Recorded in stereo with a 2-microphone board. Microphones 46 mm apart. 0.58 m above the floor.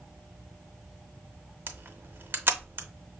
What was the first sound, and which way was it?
A camera shutter, 50° right (ahead or behind).